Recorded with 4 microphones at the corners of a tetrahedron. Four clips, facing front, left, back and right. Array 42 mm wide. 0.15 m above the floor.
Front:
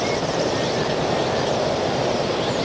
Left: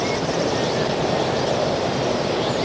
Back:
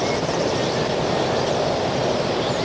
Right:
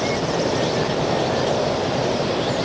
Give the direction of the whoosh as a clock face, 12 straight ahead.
I don't hear a whoosh.